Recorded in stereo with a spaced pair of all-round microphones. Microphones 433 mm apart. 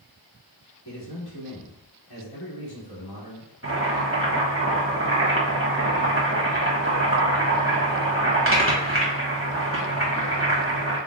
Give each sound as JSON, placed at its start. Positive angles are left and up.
{"t": 0.8, "sound": "a man speaking", "side_deg": 60, "distance_m": 1.7}
{"t": 3.6, "sound": "boiling", "side_deg": -30, "distance_m": 1.2}